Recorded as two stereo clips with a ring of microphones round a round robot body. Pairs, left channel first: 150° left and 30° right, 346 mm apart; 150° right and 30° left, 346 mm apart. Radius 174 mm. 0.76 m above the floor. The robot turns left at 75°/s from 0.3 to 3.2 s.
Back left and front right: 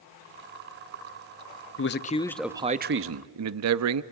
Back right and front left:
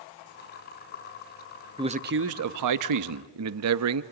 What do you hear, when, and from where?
1.8 s a man speaking: 105° left, 0.7 m; by 4.0 s straight ahead, 0.7 m